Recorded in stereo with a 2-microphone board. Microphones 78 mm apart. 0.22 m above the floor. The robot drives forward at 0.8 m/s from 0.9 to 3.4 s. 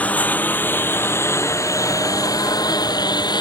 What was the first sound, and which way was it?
A lawn mower, 20° left (ahead or behind).